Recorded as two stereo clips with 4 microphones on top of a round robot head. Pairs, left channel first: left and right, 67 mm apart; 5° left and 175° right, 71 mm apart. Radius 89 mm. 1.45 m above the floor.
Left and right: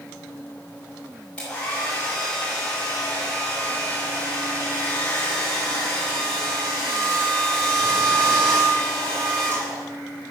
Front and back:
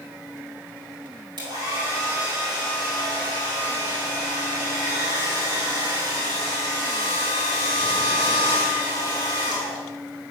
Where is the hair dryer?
170° left, 4.5 m.